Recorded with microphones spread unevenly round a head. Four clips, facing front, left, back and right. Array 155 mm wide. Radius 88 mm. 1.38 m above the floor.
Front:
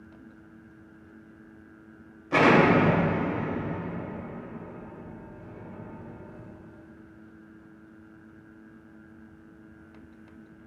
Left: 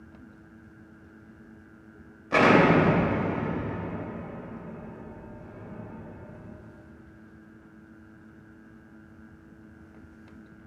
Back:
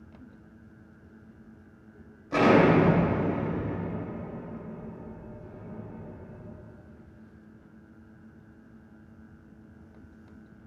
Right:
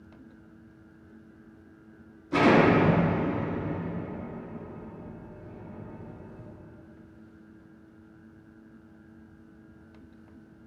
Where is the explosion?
55° left, 2.5 m.